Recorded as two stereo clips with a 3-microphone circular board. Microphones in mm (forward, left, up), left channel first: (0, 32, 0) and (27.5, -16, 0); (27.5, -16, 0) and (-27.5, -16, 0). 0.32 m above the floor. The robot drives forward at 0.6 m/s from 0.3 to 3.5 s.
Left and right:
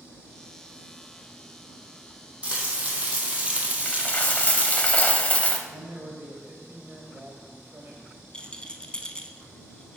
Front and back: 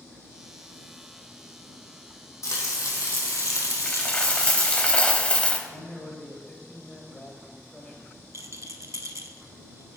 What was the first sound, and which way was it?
Frying, 5° left.